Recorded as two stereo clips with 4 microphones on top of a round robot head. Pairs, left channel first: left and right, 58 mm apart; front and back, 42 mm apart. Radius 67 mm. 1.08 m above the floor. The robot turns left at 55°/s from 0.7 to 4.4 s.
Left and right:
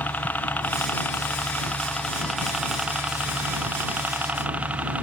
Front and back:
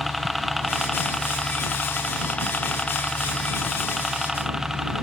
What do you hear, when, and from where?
0.0 s a helicopter: 90° left; by 5.0 s 115° right